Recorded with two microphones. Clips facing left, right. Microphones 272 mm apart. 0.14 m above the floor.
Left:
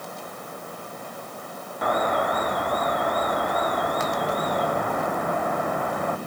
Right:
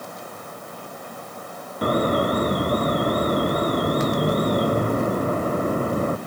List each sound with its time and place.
1.8 s an alarm: 35° right (ahead or behind)